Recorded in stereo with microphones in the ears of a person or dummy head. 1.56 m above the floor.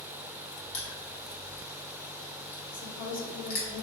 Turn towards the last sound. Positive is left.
turn(degrees=70)  # may be behind; listen again after turning